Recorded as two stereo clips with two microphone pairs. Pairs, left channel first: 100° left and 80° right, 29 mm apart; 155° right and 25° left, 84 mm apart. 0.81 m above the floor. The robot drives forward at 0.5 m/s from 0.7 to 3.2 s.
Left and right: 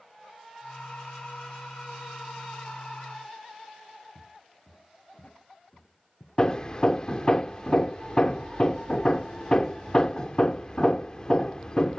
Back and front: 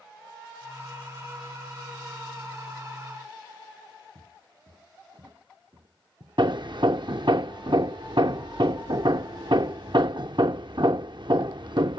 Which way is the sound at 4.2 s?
65° left.